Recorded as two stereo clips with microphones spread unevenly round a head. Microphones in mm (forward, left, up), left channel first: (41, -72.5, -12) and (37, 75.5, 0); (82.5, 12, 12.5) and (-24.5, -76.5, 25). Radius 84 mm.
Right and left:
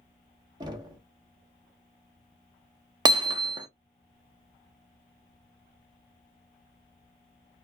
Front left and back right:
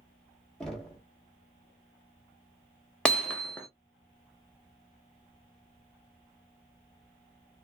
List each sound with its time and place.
0.6 s knocking: 130° left, 0.7 m
3.0 s hammering: 130° left, 0.6 m